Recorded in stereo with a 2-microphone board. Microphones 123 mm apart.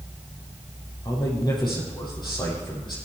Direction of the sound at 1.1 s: 40° left (ahead or behind).